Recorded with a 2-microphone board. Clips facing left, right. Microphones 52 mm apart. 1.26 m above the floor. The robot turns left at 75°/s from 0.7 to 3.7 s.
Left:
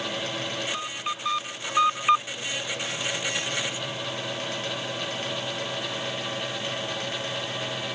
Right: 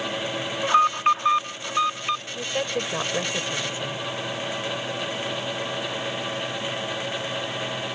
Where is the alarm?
105° right; by 2.2 s 145° left.